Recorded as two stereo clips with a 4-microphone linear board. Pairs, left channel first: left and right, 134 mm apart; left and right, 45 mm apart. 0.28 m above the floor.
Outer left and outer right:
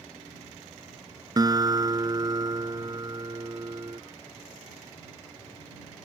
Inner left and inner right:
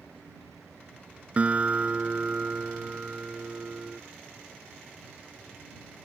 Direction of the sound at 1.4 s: 30° right (ahead or behind).